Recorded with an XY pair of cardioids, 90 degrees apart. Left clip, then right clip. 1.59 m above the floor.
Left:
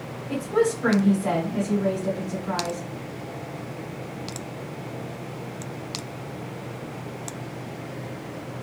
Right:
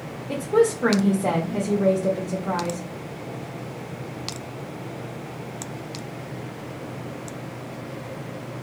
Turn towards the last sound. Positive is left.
turn(degrees=-65)